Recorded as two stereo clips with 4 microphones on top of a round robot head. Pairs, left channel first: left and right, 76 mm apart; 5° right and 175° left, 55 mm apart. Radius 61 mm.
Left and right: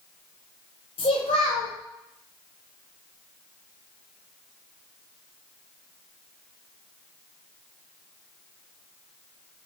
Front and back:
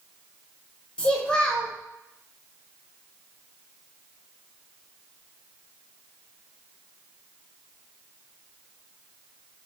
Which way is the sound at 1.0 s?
60° left.